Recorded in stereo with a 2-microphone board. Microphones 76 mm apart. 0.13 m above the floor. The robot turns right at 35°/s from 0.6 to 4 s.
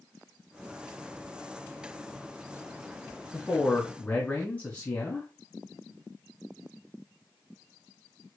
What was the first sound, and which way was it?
A man speaking, 15° left (ahead or behind).